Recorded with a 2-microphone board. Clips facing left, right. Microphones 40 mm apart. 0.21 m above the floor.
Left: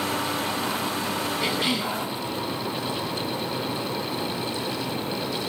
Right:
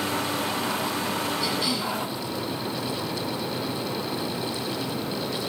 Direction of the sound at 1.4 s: 45° left (ahead or behind).